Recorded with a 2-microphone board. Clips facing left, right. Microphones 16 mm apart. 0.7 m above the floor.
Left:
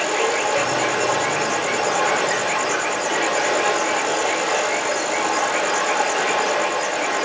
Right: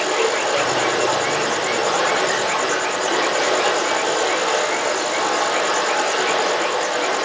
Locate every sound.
0.0 s running water: 75° right (ahead or behind), 5.5 m